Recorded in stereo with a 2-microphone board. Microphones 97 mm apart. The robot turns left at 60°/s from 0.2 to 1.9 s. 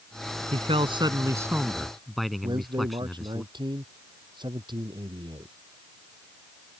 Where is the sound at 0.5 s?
100° right; by 3.4 s straight behind.